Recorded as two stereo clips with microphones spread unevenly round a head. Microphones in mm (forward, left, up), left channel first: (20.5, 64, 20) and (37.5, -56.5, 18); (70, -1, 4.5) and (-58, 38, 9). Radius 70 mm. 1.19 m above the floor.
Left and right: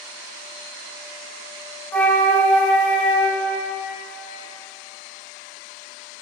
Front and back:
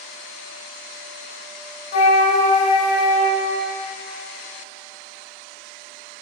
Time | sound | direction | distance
1.9 | a flute | 20° left | 1.7 m